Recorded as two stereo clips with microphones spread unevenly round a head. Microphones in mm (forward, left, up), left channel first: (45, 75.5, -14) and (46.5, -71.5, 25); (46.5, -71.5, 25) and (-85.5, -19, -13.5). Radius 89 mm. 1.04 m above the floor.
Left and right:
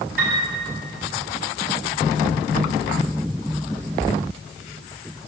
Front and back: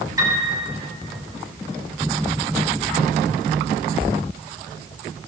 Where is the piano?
135° right, 8.5 m.